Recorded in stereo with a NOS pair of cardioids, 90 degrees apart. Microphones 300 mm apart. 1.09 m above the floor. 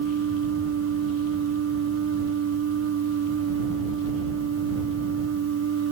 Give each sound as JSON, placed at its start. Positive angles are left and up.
{"t": 0.0, "sound": "a machine running", "azimuth_deg": -60}